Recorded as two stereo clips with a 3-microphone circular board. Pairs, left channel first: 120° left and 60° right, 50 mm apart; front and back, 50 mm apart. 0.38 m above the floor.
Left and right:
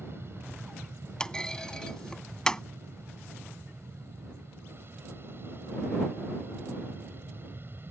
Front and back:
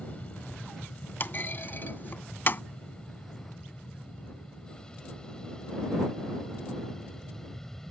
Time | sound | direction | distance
0.0 | an aircraft | 55° right | ?
1.2 | a clunk | 45° left | ?